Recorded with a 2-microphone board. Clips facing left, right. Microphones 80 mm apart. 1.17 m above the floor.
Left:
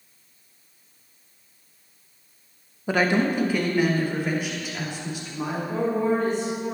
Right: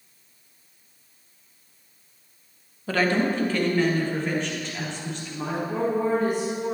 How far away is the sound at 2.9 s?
About 0.9 m.